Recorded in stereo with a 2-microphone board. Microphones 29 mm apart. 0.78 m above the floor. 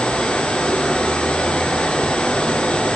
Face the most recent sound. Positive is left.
turn(degrees=70)  # may be behind; listen again after turning